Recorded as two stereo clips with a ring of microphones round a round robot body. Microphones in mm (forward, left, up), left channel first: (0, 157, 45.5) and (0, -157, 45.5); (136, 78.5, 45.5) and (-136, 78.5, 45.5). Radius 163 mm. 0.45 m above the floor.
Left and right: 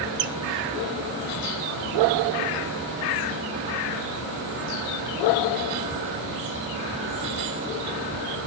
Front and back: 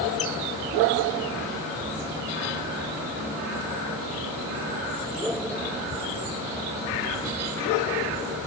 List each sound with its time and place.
0.2 s a squeak: 65° right, 1.0 m